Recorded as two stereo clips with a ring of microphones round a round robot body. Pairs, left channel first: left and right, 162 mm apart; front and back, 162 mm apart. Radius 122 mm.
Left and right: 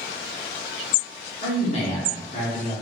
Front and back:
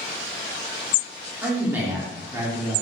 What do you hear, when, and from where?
1.4 s a man speaking: 105° left, 1.2 m